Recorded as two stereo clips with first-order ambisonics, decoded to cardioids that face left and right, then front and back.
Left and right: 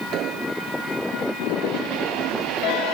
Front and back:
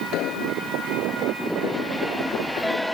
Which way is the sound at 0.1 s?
45° right.